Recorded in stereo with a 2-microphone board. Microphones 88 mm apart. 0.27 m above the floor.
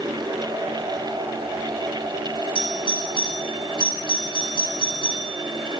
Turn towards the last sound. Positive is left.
turn(degrees=65)  # may be behind; listen again after turning